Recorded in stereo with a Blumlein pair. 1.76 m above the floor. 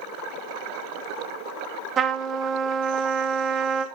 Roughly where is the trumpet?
Ahead right.